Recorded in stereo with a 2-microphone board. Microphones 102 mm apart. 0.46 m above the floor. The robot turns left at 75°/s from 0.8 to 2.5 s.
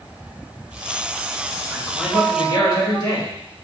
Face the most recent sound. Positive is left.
turn(degrees=125)